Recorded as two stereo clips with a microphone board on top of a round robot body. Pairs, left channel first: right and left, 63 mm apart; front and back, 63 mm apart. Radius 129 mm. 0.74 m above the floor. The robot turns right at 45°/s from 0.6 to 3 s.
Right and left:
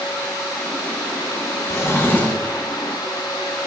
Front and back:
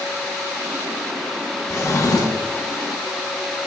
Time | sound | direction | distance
1.7 | a drawer | 50° right | 2 m